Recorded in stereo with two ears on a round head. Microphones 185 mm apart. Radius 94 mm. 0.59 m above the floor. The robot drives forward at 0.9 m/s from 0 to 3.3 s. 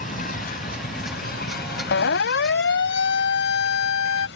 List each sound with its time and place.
0.0 s an insect: 40° left (ahead or behind); by 4.4 s 55° left (ahead or behind)
1.9 s a siren: 65° left (ahead or behind); by 4.3 s 75° left (ahead or behind)